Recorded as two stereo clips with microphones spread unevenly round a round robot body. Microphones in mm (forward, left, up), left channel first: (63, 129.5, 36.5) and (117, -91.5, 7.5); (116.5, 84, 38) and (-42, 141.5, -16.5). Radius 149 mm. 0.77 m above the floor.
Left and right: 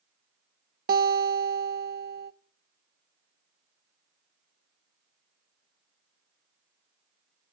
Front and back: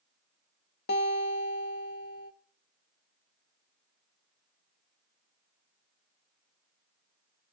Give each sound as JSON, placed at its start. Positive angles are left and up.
{"t": 0.9, "sound": "a guitar", "azimuth_deg": -60, "distance_m": 0.9}